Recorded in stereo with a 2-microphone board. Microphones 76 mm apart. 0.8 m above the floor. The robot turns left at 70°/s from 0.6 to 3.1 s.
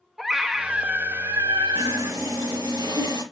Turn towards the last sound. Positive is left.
turn(degrees=-110)